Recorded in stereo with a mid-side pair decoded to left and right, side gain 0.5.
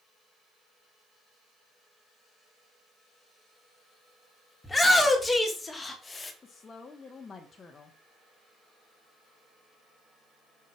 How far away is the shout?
About 2.5 m.